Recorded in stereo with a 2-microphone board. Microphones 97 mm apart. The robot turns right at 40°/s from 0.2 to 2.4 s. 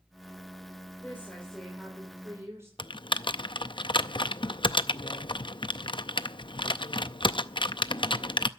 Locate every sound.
1.0 s a woman speaking: 155° left, 4 m; by 2.7 s 150° right, 4 m
2.8 s typing on a keyboard: 55° left (ahead or behind), 0.5 m